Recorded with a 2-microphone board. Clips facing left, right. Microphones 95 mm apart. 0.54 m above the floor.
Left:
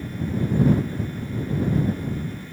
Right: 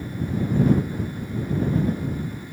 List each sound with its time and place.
Only background noise.